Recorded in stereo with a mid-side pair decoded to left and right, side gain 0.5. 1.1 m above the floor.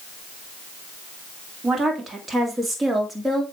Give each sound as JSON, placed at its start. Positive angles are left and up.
{"t": 1.6, "sound": "a woman speaking", "azimuth_deg": -35, "distance_m": 2.5}